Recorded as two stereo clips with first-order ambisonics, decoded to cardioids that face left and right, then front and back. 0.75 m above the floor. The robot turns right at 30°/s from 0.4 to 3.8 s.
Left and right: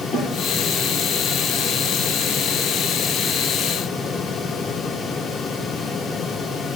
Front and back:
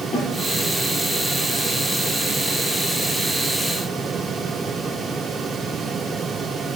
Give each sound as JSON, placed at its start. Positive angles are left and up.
{"t": 0.1, "sound": "a snare drum", "azimuth_deg": 40, "distance_m": 6.0}